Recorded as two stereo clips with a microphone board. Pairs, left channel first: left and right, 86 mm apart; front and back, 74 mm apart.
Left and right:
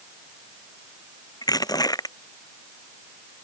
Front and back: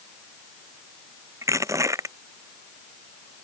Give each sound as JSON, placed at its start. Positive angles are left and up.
{"t": 1.4, "sound": "crushing", "azimuth_deg": 135}